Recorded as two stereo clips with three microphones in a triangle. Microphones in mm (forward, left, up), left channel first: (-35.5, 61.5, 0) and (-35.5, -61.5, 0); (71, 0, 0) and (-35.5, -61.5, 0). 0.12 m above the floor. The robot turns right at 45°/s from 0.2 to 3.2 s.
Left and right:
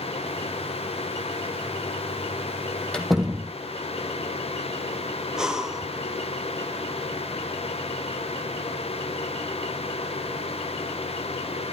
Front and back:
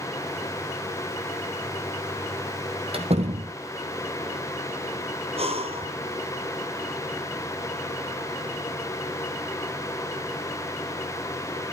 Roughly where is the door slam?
Behind.